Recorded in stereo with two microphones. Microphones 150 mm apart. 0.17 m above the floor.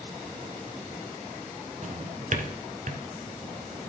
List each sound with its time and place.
1.8 s a drawer: 55° right (ahead or behind), 1.0 m